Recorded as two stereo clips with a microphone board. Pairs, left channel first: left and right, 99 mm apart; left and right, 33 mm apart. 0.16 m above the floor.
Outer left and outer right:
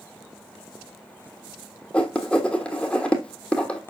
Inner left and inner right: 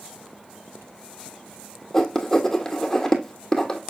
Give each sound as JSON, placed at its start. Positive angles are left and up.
{"t": 1.9, "sound": "writing", "side_deg": 10, "distance_m": 1.2}